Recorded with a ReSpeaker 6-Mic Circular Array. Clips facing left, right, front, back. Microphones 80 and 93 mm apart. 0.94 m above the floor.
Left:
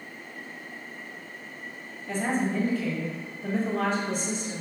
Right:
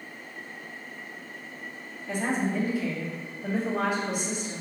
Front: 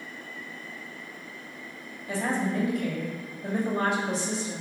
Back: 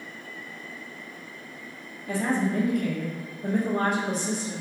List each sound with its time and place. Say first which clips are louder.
2.1 s a woman speaking: left 1 dB, back 2 dB; 165° right, 1.2 m